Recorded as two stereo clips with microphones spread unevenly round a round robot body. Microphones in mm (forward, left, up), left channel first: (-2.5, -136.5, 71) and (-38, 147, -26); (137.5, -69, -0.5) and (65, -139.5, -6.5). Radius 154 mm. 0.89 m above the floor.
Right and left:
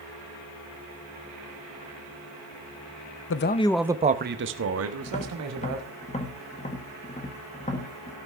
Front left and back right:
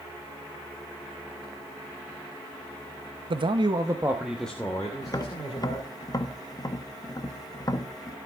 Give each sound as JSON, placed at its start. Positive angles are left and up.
{"t": 3.3, "sound": "a man speaking", "azimuth_deg": -135, "distance_m": 0.8}
{"t": 5.0, "sound": "tapping", "azimuth_deg": -5, "distance_m": 1.4}